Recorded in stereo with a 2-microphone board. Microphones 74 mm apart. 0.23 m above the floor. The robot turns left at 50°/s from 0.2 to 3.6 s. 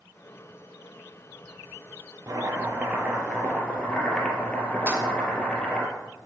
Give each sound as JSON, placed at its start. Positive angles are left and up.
{"t": 2.3, "sound": "chopping", "azimuth_deg": -130, "distance_m": 2.5}
{"t": 4.9, "sound": "keys jangling", "side_deg": -20, "distance_m": 1.5}